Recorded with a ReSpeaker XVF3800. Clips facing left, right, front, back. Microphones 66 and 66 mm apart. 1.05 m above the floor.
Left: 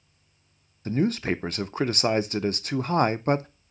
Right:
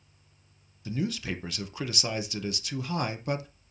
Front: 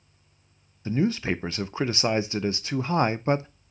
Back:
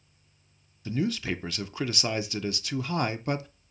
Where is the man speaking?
50° left, 0.5 m.